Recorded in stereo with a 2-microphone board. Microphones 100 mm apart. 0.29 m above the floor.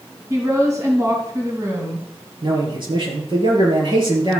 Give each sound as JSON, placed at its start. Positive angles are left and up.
{"t": 0.3, "sound": "a woman speaking", "side_deg": -30, "distance_m": 3.0}
{"t": 2.4, "sound": "a man speaking", "side_deg": -45, "distance_m": 5.5}